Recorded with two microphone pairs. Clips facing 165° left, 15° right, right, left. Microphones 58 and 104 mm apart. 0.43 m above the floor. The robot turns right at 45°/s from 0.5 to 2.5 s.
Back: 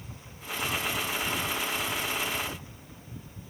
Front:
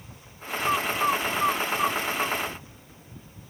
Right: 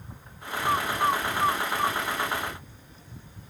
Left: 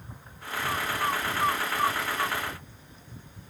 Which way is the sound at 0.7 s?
50° right.